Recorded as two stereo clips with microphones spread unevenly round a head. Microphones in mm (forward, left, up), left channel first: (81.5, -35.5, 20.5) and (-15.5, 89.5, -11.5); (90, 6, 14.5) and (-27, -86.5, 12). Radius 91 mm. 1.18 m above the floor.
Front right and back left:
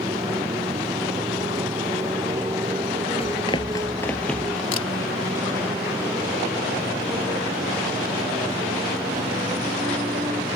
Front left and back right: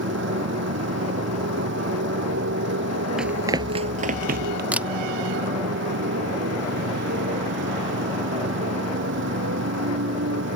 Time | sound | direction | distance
0.0 | a motorcycle | 155° right | ?
3.2 | running footsteps | 55° right | ?
4.7 | a camera shutter | 60° right | ?